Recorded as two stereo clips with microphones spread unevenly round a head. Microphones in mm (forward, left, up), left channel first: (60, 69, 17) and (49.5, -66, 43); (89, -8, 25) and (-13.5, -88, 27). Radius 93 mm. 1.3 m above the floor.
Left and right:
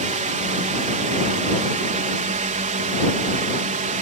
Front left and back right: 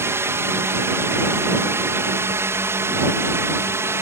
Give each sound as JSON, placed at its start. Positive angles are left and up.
{"t": 0.0, "sound": "a drone", "azimuth_deg": -75}